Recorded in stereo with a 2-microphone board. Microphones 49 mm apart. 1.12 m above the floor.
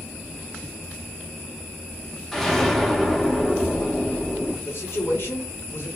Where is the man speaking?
55° left (ahead or behind), 1.2 m.